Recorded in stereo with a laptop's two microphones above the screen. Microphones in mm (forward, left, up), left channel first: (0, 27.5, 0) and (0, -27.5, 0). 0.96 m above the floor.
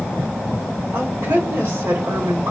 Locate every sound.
0.9 s a woman speaking: 60° right (ahead or behind), 3.5 m